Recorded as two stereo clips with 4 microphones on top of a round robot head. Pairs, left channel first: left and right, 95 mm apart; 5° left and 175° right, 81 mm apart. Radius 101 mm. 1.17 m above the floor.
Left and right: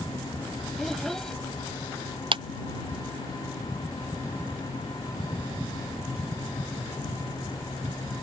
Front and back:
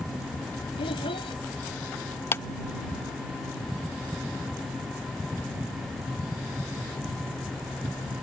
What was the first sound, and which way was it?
A child speaking, 5° left.